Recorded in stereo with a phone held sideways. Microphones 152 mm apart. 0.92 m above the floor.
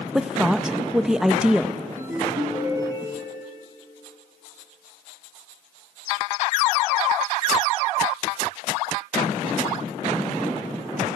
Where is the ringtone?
25° right (ahead or behind), 4.5 m.